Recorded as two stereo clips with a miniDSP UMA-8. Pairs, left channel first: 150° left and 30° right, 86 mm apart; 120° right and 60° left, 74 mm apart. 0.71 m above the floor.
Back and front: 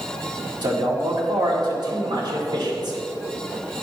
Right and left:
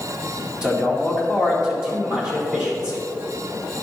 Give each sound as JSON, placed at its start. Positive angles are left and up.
{"t": 0.6, "sound": "a man speaking", "azimuth_deg": -15, "distance_m": 2.0}